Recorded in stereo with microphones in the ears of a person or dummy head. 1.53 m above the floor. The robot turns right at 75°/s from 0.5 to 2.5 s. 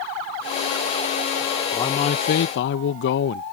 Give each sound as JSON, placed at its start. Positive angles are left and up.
{"t": 1.7, "sound": "a man speaking", "azimuth_deg": 20}